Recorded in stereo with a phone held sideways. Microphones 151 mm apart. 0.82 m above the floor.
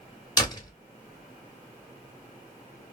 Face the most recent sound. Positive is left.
turn(degrees=25)  # may be behind; listen again after turning